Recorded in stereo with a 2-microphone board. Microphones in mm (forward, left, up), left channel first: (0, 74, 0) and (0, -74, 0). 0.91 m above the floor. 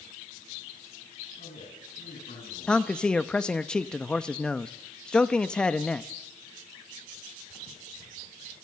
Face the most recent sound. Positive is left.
turn(degrees=5)  # may be behind; listen again after turning